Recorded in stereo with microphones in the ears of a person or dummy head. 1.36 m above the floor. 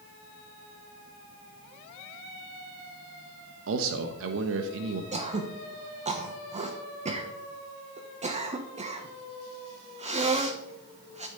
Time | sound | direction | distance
3.7 | a man speaking | 75° right (ahead or behind) | 1.2 m
5.1 | throat clearing | 35° right (ahead or behind) | 1.3 m